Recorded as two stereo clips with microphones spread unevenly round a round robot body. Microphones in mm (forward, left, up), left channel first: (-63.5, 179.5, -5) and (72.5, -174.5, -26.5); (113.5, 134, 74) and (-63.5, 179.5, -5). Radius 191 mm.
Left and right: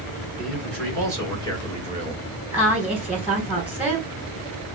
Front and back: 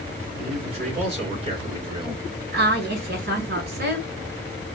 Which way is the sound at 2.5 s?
155° right.